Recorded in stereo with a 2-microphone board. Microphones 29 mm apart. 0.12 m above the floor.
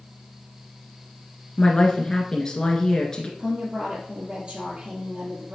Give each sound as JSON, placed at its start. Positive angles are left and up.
{"t": 1.6, "sound": "a woman speaking", "side_deg": 20, "distance_m": 1.3}
{"t": 3.4, "sound": "a woman speaking", "side_deg": -20, "distance_m": 2.0}